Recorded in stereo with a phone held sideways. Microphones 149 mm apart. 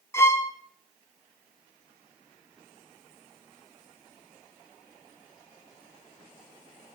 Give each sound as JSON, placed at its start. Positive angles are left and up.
{"t": 0.1, "sound": "a violin", "side_deg": 15, "distance_m": 1.1}